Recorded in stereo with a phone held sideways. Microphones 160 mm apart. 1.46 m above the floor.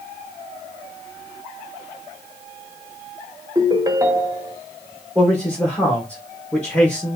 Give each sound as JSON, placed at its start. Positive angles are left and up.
{"t": 3.5, "sound": "a ringtone", "side_deg": -25, "distance_m": 0.6}
{"t": 5.2, "sound": "a man speaking", "side_deg": 10, "distance_m": 1.0}